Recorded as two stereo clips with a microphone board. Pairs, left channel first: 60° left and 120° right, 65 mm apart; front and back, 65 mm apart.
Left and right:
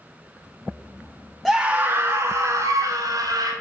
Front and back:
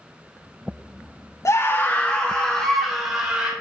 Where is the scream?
25° right, 0.8 m; by 3.5 s 115° right, 2.5 m.